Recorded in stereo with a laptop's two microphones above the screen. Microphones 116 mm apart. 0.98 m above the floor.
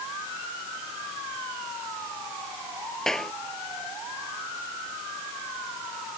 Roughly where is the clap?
Centre.